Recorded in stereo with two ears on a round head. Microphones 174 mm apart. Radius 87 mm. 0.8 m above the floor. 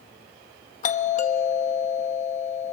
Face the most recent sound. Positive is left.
turn(degrees=40)  # may be behind; listen again after turning